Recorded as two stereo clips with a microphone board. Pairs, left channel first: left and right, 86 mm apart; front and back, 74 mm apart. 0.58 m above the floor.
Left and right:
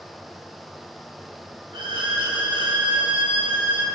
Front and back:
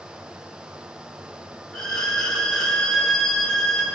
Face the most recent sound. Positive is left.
turn(degrees=-80)